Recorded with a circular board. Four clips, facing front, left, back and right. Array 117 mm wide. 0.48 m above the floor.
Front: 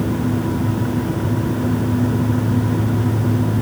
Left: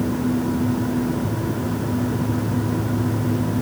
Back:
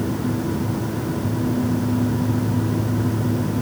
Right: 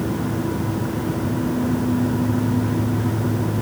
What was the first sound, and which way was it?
Only background noise.